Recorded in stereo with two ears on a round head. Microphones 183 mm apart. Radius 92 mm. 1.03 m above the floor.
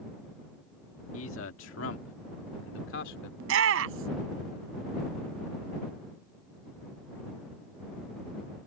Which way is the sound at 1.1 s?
75° left (ahead or behind).